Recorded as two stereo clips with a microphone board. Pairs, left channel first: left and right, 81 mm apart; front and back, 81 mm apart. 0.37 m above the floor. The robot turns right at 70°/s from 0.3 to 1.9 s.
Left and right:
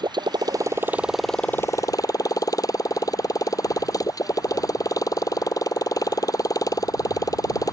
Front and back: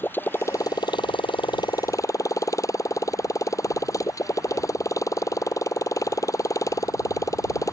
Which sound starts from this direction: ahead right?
A motorcycle, at 0.0 s.